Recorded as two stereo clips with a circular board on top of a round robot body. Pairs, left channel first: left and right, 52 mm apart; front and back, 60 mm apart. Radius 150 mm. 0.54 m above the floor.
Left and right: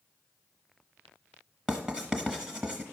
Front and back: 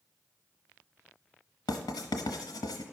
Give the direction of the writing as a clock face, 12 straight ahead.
12 o'clock.